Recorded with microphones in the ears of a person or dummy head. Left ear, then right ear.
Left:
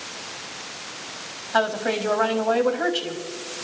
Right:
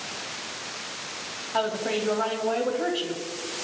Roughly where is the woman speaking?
Left.